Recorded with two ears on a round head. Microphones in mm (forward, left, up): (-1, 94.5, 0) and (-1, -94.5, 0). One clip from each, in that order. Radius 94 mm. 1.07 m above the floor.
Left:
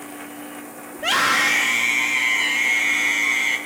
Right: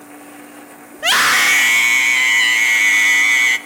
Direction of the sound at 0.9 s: 50° right (ahead or behind).